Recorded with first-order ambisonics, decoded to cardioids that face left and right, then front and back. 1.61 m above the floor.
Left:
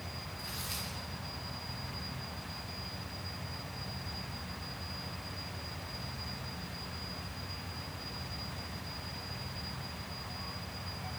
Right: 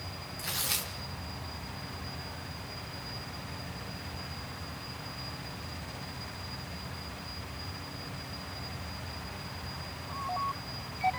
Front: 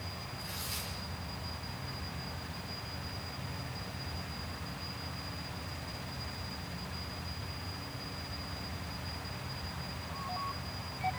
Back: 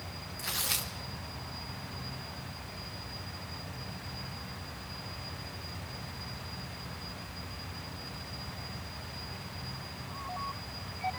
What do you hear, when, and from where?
0.4 s tearing paper: 145° right, 1.8 m